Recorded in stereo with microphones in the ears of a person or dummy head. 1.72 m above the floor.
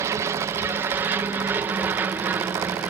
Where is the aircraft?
15° right (ahead or behind); by 2.9 s 10° right (ahead or behind).